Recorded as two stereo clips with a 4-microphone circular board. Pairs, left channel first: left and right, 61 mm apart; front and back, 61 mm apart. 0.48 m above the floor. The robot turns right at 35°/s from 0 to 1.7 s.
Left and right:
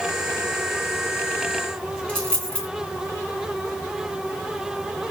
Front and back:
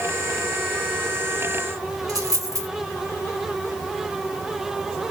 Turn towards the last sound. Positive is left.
turn(degrees=165)